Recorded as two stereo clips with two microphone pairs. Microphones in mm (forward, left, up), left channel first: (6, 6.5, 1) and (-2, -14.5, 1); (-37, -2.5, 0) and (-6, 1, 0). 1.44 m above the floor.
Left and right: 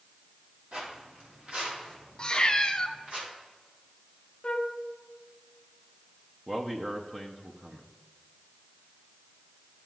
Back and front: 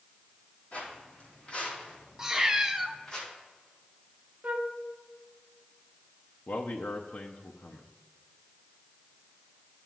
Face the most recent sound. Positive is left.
turn(degrees=-175)